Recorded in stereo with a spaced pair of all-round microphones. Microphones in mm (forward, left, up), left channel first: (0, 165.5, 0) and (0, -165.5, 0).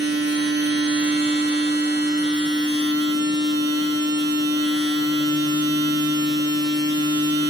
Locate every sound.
0.0 s a machine running: 35° right (ahead or behind), 0.9 m